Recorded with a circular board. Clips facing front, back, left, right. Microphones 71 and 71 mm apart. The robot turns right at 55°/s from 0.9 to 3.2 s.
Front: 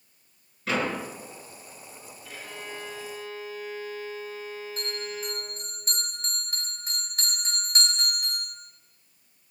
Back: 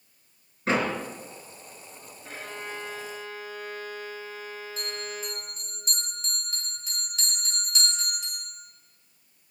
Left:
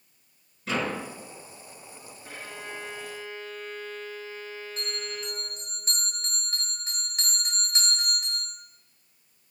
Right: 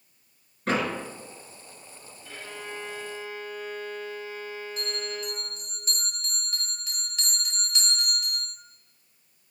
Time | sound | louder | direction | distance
0.7 | a door slam | back 2 dB, right 3 dB | 125° right | 3.5 m
2.2 | a violin | back 3 dB, right 1 dB | 135° left | 4.5 m
4.8 | a bell | front 1 dB, right 2 dB | 40° left | 5 m